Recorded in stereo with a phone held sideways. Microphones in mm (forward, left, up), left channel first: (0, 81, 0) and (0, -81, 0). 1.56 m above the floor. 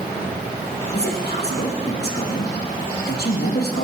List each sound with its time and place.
0.9 s a man speaking: 80° left, 1.9 m